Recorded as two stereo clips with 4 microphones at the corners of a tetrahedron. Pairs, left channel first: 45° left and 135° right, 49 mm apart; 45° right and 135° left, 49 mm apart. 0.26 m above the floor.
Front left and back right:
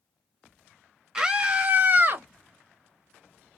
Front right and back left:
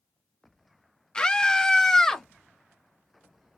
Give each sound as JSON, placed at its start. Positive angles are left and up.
{"t": 1.1, "sound": "a scream", "azimuth_deg": -80, "distance_m": 1.0}